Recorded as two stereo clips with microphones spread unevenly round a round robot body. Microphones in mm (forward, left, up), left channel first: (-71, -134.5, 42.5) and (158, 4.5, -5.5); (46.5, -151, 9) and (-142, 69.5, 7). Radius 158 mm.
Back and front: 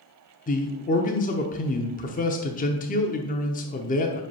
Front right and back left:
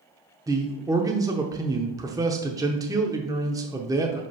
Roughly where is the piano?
No piano in this recording.